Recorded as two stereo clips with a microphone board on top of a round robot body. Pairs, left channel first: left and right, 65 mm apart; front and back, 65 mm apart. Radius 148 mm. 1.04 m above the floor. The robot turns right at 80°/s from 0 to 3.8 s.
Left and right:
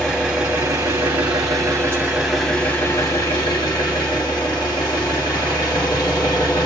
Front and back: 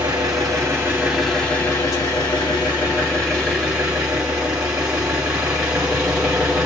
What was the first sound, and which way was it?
An engine running, 170° left.